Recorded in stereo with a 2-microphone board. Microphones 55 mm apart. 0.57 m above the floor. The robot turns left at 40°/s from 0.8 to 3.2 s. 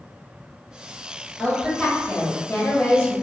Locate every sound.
1.4 s a woman speaking: 170° left, 1.0 m; by 3.1 s 100° left, 1.0 m